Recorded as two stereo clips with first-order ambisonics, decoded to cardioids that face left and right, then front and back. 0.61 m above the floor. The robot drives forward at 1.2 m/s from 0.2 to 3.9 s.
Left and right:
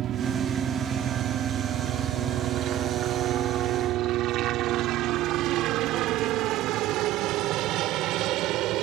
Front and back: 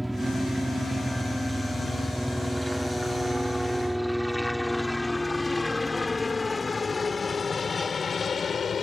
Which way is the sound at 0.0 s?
95° right.